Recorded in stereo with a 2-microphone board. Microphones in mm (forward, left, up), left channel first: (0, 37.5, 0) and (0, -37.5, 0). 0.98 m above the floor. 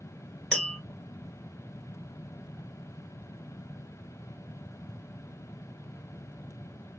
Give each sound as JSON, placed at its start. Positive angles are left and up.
{"t": 0.5, "sound": "tapping", "side_deg": 15, "distance_m": 1.9}